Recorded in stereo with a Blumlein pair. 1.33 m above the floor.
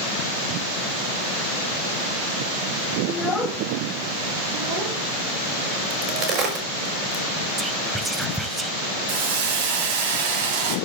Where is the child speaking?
20° left, 1.6 m; by 6.6 s 60° right, 5.5 m.